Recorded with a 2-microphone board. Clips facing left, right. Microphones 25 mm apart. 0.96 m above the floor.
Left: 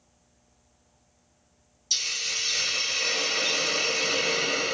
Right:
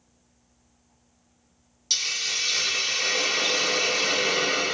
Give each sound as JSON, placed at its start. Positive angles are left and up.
{"t": 1.9, "sound": "a hiss", "side_deg": -50, "distance_m": 1.0}